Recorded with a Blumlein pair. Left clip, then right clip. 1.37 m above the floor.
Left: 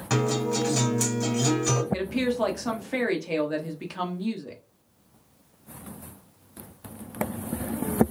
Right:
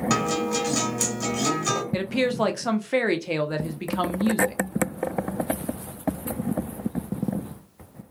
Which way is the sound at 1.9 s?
15° right.